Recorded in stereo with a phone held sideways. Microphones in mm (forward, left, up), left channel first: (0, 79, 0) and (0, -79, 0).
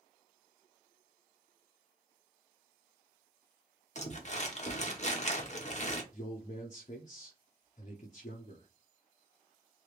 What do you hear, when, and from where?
4.0 s crumpling: 45° left (ahead or behind), 0.9 m
6.1 s a man speaking: 50° left (ahead or behind), 0.6 m